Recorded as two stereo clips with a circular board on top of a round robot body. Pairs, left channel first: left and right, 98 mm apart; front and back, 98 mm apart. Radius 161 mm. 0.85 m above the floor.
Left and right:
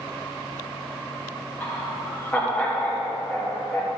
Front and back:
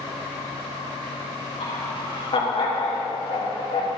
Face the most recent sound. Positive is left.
turn(degrees=15)